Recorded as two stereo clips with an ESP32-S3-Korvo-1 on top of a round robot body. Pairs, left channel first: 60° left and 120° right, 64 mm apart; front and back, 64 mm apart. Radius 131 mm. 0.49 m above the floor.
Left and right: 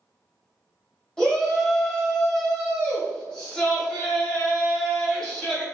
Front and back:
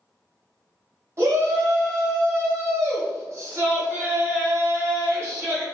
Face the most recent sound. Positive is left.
turn(degrees=135)